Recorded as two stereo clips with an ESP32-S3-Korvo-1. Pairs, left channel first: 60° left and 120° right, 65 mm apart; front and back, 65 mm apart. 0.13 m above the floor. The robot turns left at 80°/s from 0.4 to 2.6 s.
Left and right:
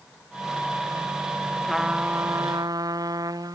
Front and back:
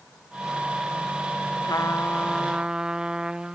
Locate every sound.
1.6 s a trumpet: 25° right; by 3.5 s 100° right